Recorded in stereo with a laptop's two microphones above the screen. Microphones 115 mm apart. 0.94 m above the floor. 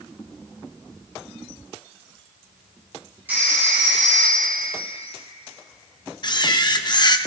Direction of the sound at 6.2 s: 40° left (ahead or behind).